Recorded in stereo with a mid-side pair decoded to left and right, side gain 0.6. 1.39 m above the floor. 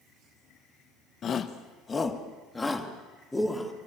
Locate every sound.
1.2 s a shout: 45° left, 1.3 m; by 3.7 s 15° left, 3.5 m